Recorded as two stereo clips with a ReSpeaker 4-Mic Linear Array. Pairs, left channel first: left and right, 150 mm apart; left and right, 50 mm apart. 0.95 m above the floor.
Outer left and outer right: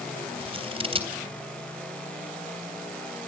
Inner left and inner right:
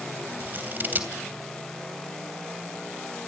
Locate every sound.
0.4 s scissors: 40° right (ahead or behind), 3 m